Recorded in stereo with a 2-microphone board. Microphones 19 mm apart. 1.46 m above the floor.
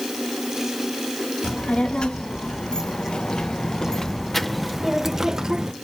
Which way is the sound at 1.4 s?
70° left (ahead or behind).